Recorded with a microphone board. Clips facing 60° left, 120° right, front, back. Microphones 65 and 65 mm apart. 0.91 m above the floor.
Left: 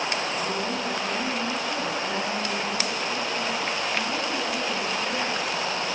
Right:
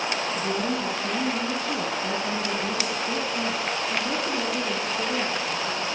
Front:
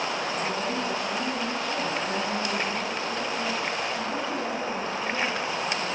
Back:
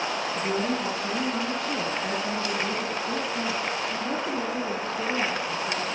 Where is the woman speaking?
155° right, 8.5 m; by 5.8 s 160° right, 12 m.